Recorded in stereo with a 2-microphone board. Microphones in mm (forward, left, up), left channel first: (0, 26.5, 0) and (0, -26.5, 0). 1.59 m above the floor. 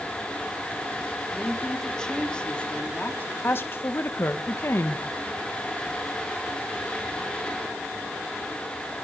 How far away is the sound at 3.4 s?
About 2.0 m.